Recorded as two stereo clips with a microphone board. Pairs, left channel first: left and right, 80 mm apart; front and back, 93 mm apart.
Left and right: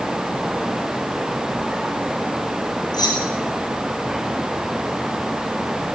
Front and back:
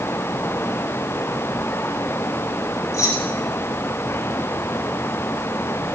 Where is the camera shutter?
I don't hear a camera shutter.